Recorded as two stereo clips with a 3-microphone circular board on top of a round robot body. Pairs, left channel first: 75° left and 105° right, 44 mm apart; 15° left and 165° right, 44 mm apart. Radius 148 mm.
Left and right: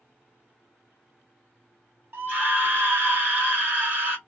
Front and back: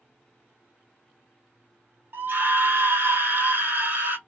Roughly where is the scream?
Behind right.